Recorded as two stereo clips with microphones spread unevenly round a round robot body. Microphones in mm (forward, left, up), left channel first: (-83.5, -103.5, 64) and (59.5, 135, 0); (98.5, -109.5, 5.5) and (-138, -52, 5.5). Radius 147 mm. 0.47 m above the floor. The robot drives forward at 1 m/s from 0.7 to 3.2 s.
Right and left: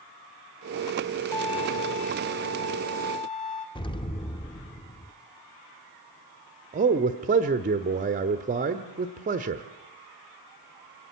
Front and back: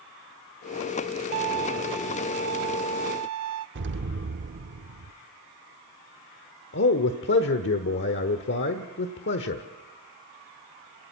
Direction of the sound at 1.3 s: 160° left.